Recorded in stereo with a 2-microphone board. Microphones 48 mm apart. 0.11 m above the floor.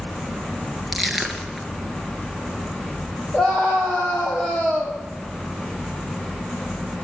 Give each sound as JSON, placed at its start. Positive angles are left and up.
{"t": 0.9, "sound": "crushing", "side_deg": 0, "distance_m": 2.0}
{"t": 3.3, "sound": "a scream", "side_deg": 20, "distance_m": 3.5}